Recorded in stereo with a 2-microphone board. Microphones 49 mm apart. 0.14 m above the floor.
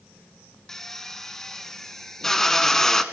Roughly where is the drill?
Centre.